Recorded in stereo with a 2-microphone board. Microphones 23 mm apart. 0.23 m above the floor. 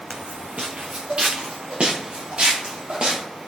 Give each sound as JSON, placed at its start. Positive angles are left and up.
{"t": 0.1, "sound": "footsteps", "side_deg": -60, "distance_m": 1.0}